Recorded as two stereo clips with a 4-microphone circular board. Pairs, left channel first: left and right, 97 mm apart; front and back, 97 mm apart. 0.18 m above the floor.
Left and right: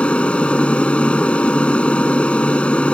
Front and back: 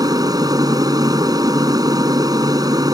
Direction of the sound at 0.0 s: 165° left.